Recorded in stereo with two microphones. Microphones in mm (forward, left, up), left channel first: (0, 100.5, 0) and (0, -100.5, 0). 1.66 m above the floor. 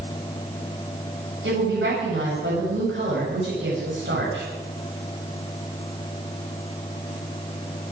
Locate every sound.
1.4 s a woman speaking: 70° right (ahead or behind), 8.5 m